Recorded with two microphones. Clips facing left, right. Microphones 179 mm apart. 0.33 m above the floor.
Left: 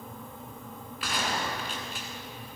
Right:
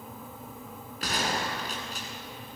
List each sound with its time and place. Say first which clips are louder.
1.0 s a gunshot: right 1 dB; 45° right (ahead or behind), 2 m